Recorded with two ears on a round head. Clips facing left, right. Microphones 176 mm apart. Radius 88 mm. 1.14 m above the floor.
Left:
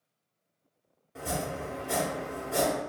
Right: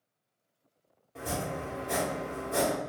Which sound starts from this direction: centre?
Chopping, at 1.1 s.